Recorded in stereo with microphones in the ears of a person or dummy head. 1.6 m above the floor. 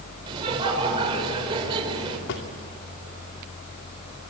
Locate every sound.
0.3 s laughter: 25° right (ahead or behind), 5 m
2.3 s a drawer: 60° left (ahead or behind), 2.5 m